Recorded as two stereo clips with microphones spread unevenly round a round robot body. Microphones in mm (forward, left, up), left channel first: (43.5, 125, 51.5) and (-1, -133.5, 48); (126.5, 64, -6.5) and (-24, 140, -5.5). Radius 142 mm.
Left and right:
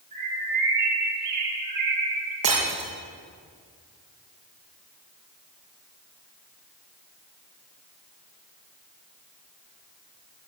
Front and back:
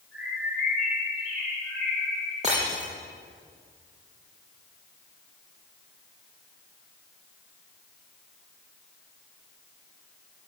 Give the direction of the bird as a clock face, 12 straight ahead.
4 o'clock.